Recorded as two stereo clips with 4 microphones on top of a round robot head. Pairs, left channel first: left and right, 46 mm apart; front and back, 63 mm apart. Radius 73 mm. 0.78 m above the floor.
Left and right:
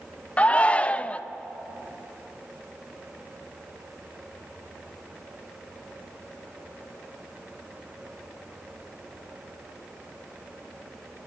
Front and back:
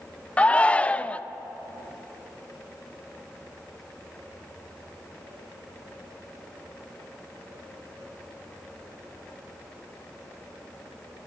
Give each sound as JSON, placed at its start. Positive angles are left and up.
{"t": 0.4, "sound": "a shout", "azimuth_deg": 55, "distance_m": 0.7}